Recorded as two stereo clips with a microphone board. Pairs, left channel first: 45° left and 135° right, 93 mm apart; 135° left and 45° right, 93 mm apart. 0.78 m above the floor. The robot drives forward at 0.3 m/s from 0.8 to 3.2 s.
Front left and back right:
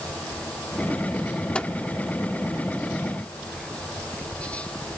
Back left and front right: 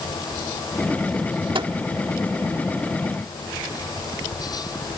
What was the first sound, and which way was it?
A microwave, 30° right.